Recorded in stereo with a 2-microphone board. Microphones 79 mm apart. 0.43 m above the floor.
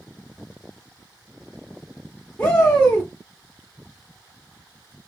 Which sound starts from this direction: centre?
A shout, at 2.4 s.